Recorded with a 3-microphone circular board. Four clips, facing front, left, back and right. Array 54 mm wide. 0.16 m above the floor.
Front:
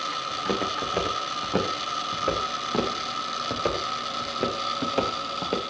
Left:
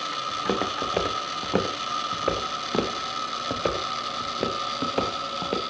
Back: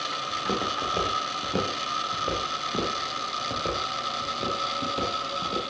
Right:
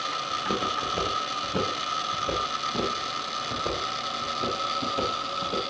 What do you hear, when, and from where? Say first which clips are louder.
0.3 s footsteps: left 1 dB, even; 80° left, 4.5 m; by 5.6 s 45° left, 4 m